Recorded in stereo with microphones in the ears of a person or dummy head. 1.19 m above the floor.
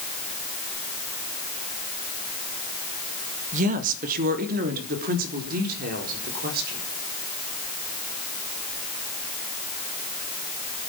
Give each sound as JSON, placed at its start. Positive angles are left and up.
{"t": 3.5, "sound": "a woman speaking", "side_deg": -40, "distance_m": 1.8}